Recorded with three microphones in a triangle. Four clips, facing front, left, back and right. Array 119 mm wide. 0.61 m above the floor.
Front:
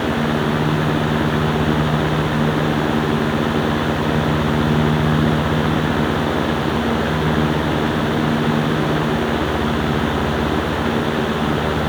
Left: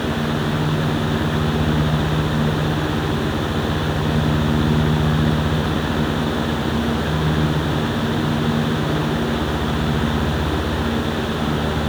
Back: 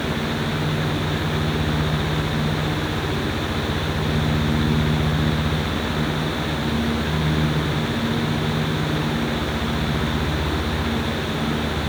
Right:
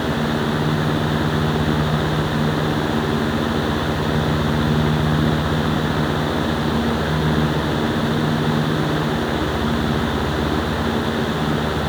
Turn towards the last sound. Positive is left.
No sound to turn to.